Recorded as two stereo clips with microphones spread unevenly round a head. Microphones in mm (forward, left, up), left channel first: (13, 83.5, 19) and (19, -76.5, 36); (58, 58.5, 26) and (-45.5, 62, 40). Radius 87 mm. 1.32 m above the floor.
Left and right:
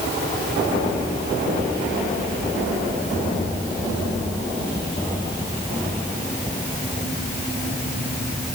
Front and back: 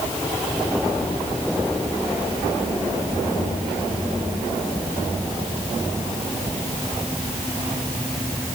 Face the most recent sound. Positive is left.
No sound to turn to.